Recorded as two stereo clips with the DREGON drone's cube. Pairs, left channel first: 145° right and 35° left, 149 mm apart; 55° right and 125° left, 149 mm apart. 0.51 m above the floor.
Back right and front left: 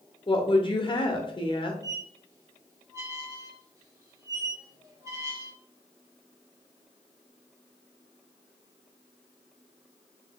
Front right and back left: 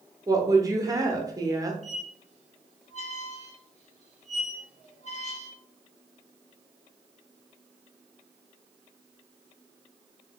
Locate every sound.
0.3 s a woman speaking: straight behind, 0.8 m
1.8 s a squeak: 30° right, 0.9 m